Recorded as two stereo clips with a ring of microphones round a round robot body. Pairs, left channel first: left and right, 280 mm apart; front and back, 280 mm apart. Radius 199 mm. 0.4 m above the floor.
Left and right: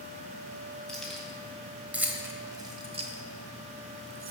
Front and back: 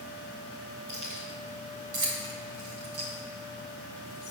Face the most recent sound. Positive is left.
turn(degrees=-90)